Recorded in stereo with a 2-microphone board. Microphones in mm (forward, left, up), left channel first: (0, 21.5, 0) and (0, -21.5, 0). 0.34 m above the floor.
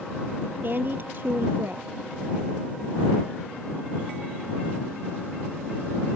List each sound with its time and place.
0.6 s a woman speaking: 50° right (ahead or behind)